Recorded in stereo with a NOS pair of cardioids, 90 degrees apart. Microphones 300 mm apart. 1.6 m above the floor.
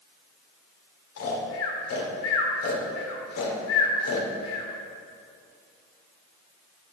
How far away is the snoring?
About 3 m.